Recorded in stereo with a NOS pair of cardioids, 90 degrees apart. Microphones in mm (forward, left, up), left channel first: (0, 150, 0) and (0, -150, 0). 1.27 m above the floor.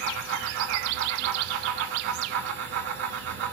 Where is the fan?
65° right, 2.0 m.